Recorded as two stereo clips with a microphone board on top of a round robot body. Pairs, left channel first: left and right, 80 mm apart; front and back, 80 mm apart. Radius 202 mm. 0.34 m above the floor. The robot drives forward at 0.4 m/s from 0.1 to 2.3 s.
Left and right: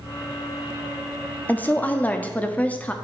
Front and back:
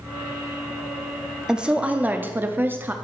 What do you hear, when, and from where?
1.5 s a woman speaking: 115° left, 1.2 m; by 2.9 s 145° left, 1.3 m